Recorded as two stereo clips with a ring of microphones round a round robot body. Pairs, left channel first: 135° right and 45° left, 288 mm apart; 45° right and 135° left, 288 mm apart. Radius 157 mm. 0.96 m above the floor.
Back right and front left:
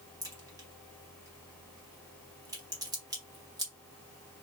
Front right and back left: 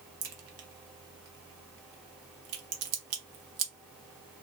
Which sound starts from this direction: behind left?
A crack, at 0.2 s.